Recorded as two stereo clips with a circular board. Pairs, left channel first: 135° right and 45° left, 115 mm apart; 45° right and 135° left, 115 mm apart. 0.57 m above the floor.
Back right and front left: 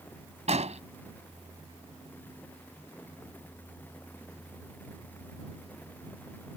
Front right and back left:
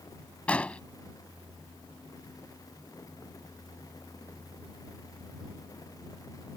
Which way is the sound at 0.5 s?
35° left.